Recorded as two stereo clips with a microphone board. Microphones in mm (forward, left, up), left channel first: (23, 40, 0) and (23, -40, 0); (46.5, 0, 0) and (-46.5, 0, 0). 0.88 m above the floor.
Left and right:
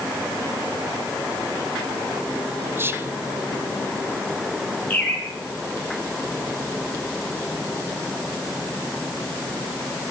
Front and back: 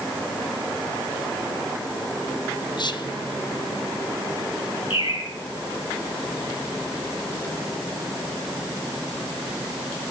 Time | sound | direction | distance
2.8 | whispering | 30° right | 0.8 m
4.9 | a bird | 20° left | 3 m